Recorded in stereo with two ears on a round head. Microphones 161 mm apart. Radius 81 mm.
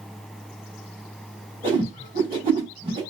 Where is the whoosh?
25° right (ahead or behind), 3 m.